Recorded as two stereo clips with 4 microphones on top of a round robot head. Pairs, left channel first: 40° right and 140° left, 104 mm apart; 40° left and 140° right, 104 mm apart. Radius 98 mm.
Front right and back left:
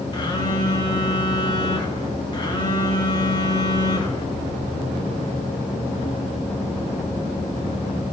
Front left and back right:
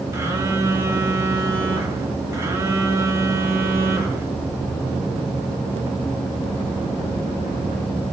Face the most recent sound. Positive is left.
turn(degrees=-80)